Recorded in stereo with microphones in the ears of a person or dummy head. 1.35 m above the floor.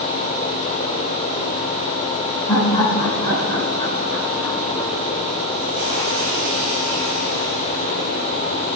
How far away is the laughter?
About 6.5 m.